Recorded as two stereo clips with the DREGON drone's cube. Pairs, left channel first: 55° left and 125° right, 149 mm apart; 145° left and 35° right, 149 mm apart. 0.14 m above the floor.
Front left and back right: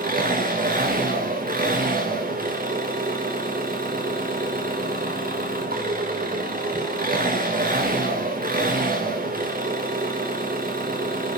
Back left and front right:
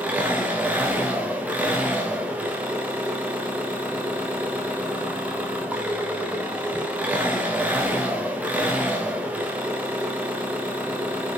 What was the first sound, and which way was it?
An engine running, 115° right.